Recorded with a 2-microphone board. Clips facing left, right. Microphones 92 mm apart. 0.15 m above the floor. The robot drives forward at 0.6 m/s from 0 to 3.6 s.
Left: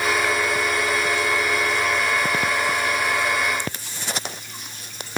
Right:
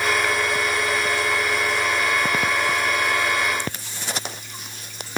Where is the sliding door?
I don't hear a sliding door.